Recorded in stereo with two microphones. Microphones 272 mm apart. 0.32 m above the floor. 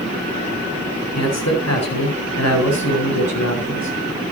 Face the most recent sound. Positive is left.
turn(degrees=75)  # may be behind; listen again after turning